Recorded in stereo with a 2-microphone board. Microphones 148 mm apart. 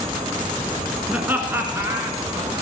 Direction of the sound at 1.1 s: 10° right (ahead or behind).